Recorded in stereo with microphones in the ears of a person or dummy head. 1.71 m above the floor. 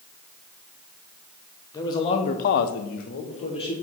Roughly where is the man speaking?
Left.